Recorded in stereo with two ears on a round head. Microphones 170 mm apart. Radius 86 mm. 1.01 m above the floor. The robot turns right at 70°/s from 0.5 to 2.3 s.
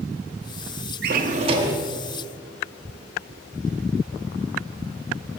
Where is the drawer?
65° right, 0.7 m; by 1.8 s 10° right, 0.7 m.